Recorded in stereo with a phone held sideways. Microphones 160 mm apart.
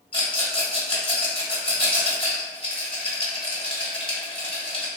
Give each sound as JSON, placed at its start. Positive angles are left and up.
{"t": 0.1, "sound": "a rattle", "side_deg": 35, "distance_m": 1.7}